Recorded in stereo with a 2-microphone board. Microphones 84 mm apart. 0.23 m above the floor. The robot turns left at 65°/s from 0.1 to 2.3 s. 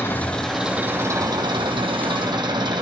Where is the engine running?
25° left, 2 m; by 2.8 s 115° right, 2 m.